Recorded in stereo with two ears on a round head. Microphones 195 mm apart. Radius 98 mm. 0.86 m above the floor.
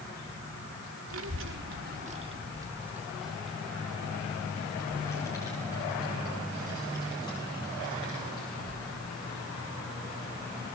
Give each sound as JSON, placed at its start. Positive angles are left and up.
{"t": 1.1, "sound": "a child speaking", "side_deg": -80, "distance_m": 1.7}